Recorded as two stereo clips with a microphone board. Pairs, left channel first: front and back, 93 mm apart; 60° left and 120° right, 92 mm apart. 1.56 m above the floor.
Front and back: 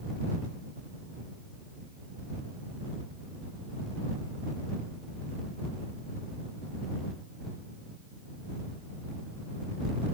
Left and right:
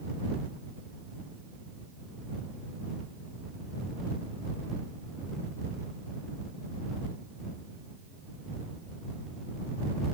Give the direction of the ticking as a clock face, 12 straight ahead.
No ticking in this recording.